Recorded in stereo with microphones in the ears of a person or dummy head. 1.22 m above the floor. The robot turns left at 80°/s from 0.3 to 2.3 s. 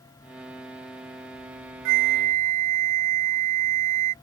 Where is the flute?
115° right; by 4.1 s 150° right.